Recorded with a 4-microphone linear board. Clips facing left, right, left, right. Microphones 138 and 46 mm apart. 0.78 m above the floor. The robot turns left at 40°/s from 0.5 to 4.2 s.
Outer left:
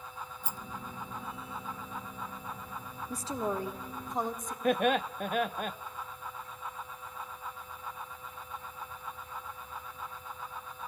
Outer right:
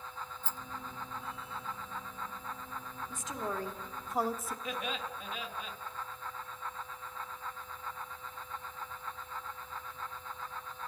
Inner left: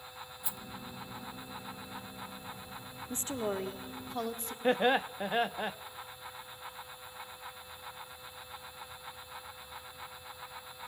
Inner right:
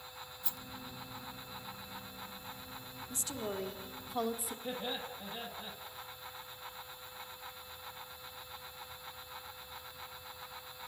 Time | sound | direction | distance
0.4 | a rattle | 10° left (ahead or behind) | 1.0 m
3.1 | a woman speaking | 40° left | 1.8 m
4.6 | laughter | 55° left (ahead or behind) | 0.8 m